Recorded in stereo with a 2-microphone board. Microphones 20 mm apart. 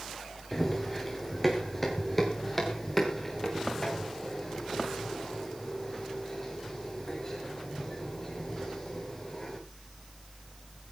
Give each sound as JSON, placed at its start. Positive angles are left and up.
{"t": 0.5, "sound": "running footsteps", "side_deg": 0, "distance_m": 6.0}